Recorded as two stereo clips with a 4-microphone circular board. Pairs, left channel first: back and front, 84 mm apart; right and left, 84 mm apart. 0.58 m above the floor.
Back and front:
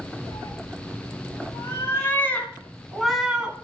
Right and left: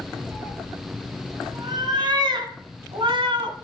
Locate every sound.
0.3 s a cat meowing: 140° left, 3 m; by 3.6 s 75° left, 1.9 m